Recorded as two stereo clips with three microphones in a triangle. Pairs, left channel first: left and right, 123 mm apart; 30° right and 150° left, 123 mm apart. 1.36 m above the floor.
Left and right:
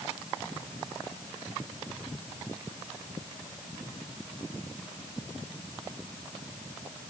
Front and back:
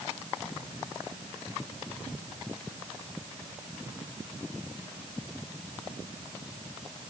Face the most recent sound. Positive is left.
No sound to turn to.